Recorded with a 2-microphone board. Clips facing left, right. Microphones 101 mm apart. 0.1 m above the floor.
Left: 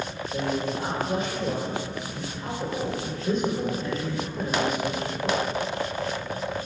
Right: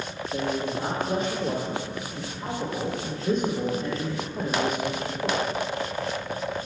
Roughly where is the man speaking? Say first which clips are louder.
Even; right.